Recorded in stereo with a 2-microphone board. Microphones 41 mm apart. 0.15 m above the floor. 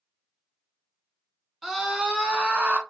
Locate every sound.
1.6 s a scream: 5° right (ahead or behind), 1.1 m; by 2.8 s 35° right (ahead or behind), 1.3 m